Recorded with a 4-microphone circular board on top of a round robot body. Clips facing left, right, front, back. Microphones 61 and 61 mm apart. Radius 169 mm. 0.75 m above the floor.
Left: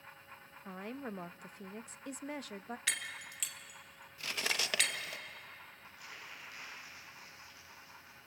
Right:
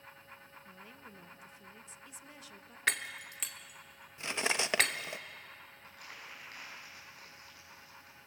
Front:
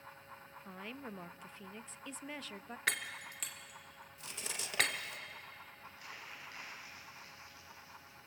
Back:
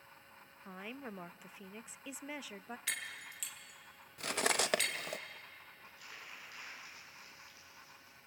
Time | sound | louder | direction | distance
0.7 | a woman speaking | left 13 dB, back 1 dB | 100° left | 0.7 m
2.9 | breaking glass | right 7 dB, front 7 dB | 45° right | 0.9 m
4.2 | cutlery clinking | right 4 dB, back 13 dB | 155° right | 0.6 m
5.8 | crumpling | right 1 dB, front 2 dB | 55° right | 9 m